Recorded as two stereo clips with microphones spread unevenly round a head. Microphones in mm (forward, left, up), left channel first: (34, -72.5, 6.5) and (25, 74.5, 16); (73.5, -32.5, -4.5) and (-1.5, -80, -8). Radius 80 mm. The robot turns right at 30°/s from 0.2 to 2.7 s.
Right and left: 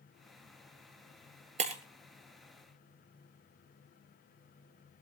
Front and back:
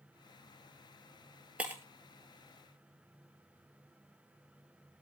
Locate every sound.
1.6 s breaking glass: 135° left, 1.7 m; by 1.8 s 140° left, 1.7 m